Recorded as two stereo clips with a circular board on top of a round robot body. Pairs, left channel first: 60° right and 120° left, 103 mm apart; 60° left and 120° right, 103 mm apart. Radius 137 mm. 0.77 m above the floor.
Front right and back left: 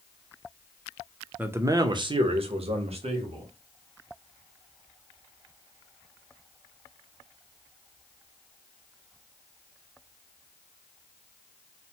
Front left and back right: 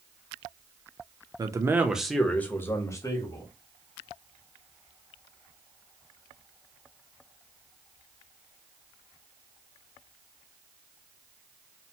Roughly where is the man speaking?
Behind.